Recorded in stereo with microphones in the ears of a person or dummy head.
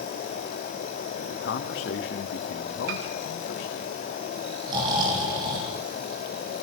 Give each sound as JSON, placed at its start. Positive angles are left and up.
{"t": 1.1, "sound": "a man speaking", "side_deg": 65, "distance_m": 2.5}
{"t": 2.9, "sound": "a piano", "side_deg": -70, "distance_m": 4.0}
{"t": 4.7, "sound": "snoring", "side_deg": -25, "distance_m": 7.5}